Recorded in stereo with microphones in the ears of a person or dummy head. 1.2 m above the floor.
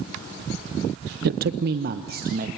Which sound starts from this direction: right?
A man speaking, at 1.2 s.